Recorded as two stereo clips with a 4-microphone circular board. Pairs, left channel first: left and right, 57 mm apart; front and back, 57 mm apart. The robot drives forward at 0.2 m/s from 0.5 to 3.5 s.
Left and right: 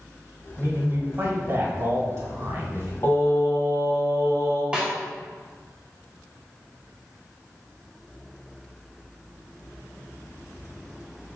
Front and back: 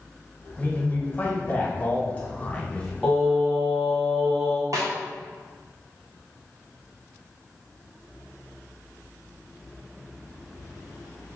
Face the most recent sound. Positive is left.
turn(degrees=-160)